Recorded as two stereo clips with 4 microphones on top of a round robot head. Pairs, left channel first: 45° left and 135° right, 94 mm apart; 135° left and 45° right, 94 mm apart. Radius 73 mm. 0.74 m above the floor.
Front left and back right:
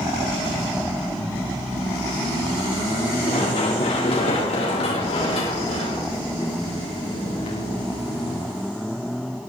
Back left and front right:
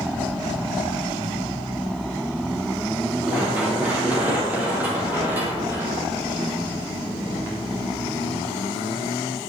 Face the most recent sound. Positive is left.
turn(degrees=20)